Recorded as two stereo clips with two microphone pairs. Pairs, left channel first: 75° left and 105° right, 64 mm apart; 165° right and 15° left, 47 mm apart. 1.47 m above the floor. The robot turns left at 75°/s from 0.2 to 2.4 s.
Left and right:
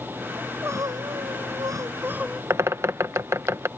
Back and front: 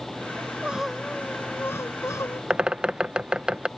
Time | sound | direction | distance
0.4 | crying | 35° right | ?
2.5 | a bird | 60° right | ?